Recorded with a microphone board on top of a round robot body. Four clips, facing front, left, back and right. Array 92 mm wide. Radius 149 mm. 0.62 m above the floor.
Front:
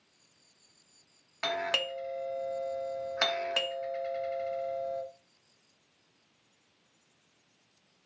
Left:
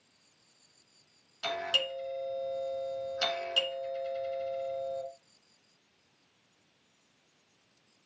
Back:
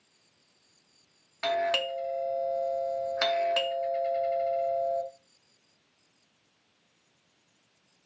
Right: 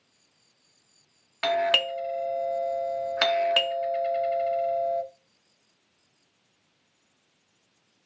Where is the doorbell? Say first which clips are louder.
Right 9 dB, back 5 dB; 80° right, 2 m.